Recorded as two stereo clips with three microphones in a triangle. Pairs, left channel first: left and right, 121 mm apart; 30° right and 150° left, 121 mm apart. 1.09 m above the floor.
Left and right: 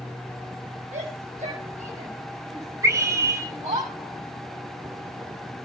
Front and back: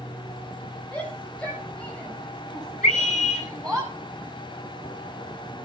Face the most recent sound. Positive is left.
turn(degrees=-25)